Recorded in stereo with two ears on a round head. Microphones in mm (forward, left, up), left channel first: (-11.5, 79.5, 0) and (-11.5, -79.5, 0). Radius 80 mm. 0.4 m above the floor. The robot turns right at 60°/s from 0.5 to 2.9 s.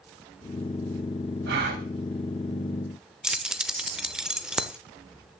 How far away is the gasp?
About 2.5 m.